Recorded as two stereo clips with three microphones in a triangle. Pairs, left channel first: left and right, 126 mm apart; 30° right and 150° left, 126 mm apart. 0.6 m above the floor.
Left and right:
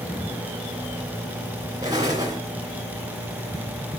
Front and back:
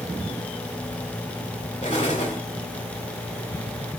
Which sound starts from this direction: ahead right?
An explosion, at 1.8 s.